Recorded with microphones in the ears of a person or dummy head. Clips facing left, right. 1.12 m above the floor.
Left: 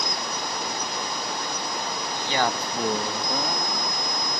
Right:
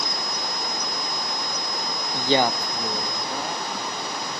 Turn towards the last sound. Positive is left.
turn(degrees=70)  # may be behind; listen again after turning